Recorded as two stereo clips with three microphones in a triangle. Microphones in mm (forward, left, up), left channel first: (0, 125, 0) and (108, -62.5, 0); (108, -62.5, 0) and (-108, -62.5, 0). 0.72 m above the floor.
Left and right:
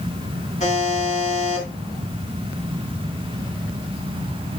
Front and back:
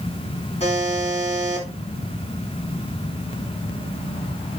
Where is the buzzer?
60° left, 3.5 m.